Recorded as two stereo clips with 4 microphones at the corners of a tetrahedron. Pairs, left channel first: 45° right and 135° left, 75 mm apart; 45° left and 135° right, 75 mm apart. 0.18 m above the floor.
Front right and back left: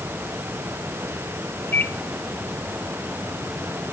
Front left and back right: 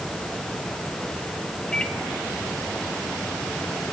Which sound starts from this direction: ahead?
A microwave, at 1.7 s.